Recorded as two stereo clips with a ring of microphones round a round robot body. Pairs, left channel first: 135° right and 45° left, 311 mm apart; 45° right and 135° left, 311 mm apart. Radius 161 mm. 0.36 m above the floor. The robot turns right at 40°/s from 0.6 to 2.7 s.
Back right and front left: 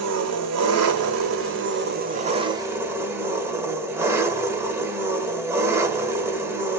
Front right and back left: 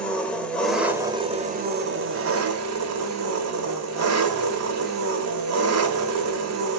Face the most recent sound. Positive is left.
turn(degrees=125)